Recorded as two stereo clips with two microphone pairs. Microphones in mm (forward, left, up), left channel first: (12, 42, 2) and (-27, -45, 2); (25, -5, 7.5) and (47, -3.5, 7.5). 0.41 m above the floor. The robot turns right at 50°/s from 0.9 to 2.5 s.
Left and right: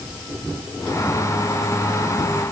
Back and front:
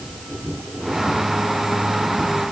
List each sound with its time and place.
Only background noise.